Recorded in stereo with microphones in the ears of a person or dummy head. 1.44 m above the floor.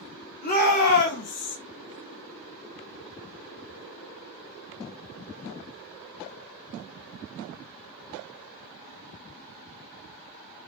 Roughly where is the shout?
Left.